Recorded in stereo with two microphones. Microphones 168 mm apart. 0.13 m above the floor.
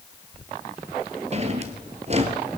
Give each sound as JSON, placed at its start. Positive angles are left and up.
{"t": 1.3, "sound": "a drawer", "side_deg": -40, "distance_m": 1.1}